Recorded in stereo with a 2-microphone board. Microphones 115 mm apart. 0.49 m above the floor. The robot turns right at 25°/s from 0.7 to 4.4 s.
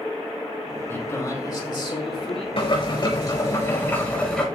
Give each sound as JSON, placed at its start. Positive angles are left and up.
{"t": 0.9, "sound": "a man speaking", "azimuth_deg": 20, "distance_m": 4.5}
{"t": 2.6, "sound": "boiling", "azimuth_deg": 125, "distance_m": 5.0}